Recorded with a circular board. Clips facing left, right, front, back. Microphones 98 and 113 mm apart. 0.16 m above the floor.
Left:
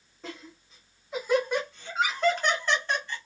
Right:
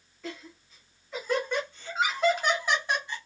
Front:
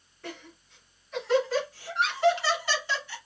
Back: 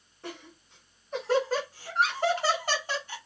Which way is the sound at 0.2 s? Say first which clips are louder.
Right 2 dB, even; 135° left.